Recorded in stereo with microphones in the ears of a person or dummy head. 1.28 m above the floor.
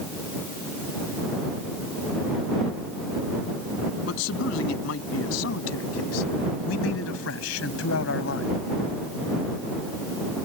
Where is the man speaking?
80° left; by 8.6 s 85° left.